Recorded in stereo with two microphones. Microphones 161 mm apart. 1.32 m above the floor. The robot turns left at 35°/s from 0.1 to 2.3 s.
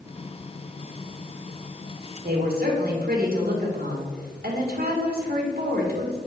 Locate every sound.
2.2 s a woman speaking: 70° right (ahead or behind), 2.0 m